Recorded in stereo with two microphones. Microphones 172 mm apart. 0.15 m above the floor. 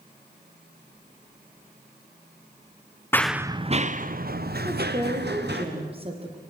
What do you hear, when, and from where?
3.1 s running footsteps: 15° left (ahead or behind), 0.7 m; by 5.7 s 75° right (ahead or behind), 2.5 m
4.7 s a woman speaking: 35° right (ahead or behind), 5 m